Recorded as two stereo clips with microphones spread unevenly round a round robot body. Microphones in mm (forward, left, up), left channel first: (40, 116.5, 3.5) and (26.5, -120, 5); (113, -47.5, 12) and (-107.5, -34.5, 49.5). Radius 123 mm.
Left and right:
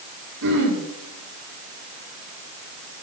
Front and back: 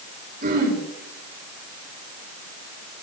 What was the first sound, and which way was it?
Throat clearing, 135° right.